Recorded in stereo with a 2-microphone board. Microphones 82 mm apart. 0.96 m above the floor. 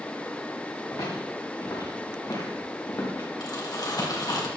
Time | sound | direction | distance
0.9 | footsteps | 60° left (ahead or behind) | 8 m
3.4 | crumpling | 55° left (ahead or behind) | 2.5 m